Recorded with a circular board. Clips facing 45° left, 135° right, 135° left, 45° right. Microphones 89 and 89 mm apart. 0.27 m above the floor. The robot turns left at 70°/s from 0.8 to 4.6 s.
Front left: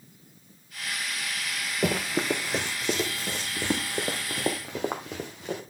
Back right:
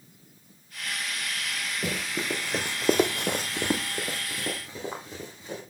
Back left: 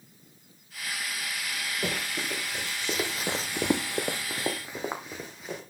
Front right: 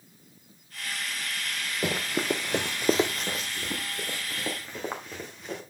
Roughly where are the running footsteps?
Ahead left.